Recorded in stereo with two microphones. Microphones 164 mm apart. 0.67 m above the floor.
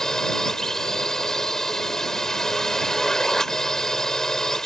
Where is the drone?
5° left (ahead or behind).